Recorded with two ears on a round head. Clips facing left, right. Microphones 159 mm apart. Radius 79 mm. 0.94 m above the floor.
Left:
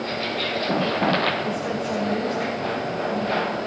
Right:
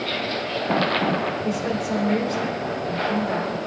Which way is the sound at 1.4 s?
35° right (ahead or behind).